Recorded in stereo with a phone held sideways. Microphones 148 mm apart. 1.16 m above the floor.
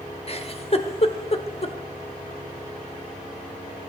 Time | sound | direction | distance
0.3 | a giggle | 45° left (ahead or behind) | 1.1 m